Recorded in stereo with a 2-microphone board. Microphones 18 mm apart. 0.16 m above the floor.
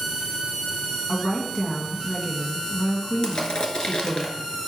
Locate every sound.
1.1 s a woman speaking: 35° left (ahead or behind), 1.7 m
3.2 s crushing: 50° left (ahead or behind), 1.0 m